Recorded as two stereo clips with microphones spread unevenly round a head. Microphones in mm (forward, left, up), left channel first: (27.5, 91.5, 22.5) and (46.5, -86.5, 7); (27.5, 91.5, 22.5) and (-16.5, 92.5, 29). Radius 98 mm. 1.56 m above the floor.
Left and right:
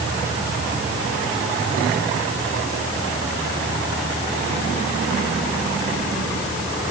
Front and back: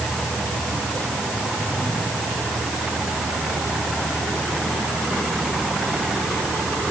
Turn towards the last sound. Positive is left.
No sound to turn to.